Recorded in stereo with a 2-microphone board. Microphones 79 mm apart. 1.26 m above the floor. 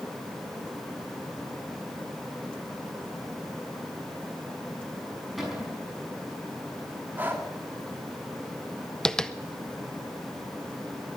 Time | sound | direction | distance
5.4 | a cupboard door | centre (ahead or behind) | 5.5 m
7.2 | breathing | 25° right (ahead or behind) | 2.5 m
9.1 | tapping | 5° left (ahead or behind) | 0.7 m